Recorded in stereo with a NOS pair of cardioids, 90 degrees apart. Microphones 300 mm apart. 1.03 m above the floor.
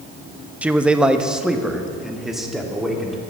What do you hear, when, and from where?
0.6 s a man speaking: 5° right, 0.7 m; by 3.2 s straight ahead, 2.5 m